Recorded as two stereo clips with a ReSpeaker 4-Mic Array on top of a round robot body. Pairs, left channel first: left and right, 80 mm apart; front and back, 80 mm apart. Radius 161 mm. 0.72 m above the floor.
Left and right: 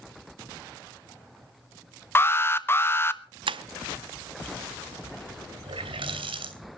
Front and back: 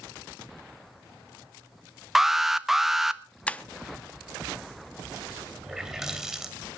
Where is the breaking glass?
75° right, 0.6 m.